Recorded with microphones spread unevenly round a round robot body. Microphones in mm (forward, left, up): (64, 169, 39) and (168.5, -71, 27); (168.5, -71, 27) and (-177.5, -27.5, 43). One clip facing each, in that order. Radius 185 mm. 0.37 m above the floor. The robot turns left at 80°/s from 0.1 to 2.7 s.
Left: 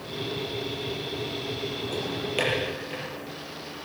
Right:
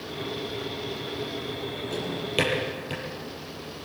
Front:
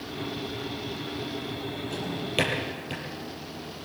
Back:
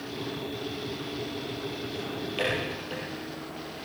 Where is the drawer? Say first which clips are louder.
Right 3 dB, front 3 dB; 10° left, 6 m; by 3.0 s 50° right, 6 m.